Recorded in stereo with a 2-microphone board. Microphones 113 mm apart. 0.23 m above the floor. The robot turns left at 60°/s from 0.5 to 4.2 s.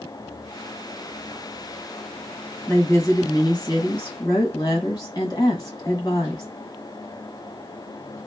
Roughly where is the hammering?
No hammering in this recording.